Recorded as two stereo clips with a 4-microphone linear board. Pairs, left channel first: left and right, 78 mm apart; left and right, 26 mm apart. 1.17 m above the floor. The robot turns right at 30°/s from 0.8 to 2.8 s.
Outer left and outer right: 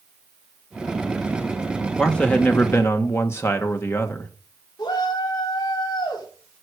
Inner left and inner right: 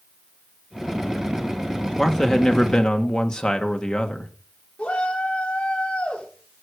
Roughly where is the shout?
Left.